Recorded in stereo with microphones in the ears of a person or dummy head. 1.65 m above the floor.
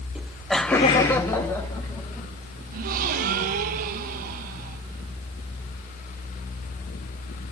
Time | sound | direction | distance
0.1 | laughter | 5° right (ahead or behind) | 0.9 m
2.7 | a gasp | 50° right (ahead or behind) | 0.9 m